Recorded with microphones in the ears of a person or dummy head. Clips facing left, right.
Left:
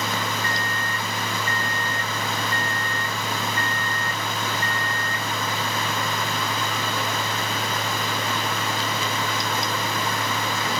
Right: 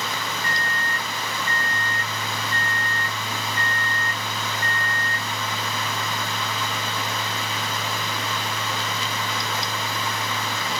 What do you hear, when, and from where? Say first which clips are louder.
0.4 s a microwave: left 1 dB; 25° right (ahead or behind), 1.7 m